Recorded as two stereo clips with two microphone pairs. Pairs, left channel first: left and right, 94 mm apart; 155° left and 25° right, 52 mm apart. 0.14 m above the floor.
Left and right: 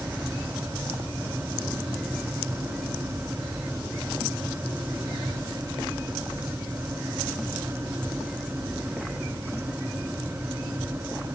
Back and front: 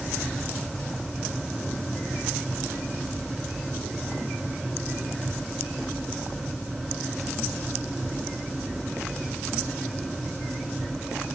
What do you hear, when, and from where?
Only background noise.